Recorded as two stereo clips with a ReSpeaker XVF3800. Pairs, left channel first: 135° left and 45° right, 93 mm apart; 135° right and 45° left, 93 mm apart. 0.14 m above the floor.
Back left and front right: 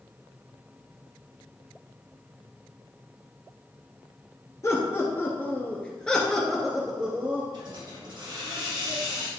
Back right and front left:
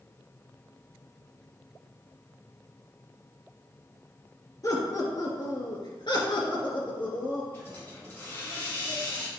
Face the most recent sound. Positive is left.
turn(degrees=-75)